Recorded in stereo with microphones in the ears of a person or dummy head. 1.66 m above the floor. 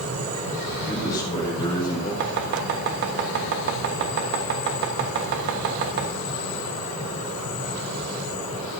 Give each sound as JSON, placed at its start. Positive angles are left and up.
{"t": 0.8, "sound": "a man speaking", "side_deg": 20, "distance_m": 5.5}
{"t": 2.2, "sound": "chopping", "side_deg": -60, "distance_m": 1.4}